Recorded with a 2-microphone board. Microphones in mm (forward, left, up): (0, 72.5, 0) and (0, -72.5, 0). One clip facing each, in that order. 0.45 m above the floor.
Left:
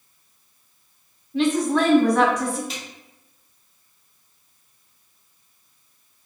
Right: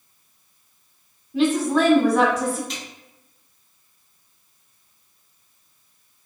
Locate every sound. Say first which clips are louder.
1.3 s a woman speaking: right 1 dB; 5° right (ahead or behind), 0.9 m
2.7 s a snare drum: right 1 dB; centre (ahead or behind), 1.6 m